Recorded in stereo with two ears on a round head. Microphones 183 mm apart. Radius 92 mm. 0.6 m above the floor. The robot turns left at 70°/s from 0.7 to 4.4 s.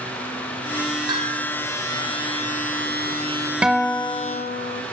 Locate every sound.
1.1 s a bell: 20° right, 4.5 m; by 1.5 s 55° right, 4.5 m
3.6 s a guitar: 175° right, 1.1 m; by 4.8 s 130° left, 1.1 m